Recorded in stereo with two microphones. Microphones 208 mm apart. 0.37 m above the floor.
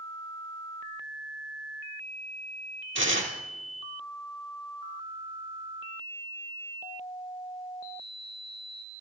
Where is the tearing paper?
70° right (ahead or behind), 3.5 m.